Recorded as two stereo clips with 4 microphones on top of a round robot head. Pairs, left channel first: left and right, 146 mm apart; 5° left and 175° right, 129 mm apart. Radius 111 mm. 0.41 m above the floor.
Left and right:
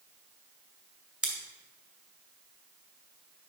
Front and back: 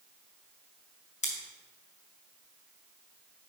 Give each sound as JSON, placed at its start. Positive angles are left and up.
{"t": 1.2, "sound": "scissors", "azimuth_deg": -10, "distance_m": 2.5}